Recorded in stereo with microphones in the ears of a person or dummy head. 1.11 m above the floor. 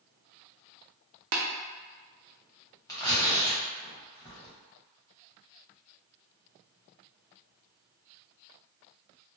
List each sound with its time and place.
1.3 s tapping: 65° right (ahead or behind), 0.5 m
2.9 s tearing paper: 20° left (ahead or behind), 0.9 m